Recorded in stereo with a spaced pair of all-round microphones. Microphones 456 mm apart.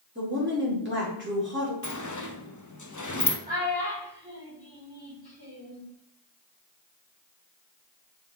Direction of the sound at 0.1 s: 25° right (ahead or behind).